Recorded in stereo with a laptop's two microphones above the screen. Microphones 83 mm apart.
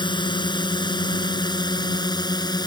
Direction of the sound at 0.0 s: 70° left (ahead or behind).